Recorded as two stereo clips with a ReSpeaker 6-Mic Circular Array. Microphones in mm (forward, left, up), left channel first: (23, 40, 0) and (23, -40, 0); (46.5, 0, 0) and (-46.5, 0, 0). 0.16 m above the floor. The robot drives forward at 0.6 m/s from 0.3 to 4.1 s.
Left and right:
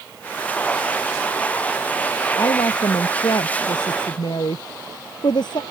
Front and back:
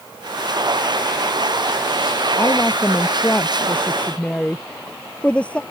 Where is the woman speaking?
60° left; by 5.6 s 75° left.